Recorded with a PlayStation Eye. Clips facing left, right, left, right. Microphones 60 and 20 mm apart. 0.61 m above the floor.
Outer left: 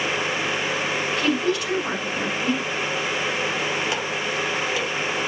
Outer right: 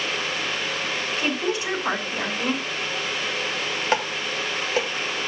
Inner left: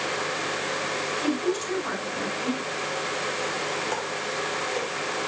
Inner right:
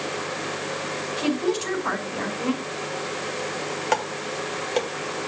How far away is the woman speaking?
About 4.5 m.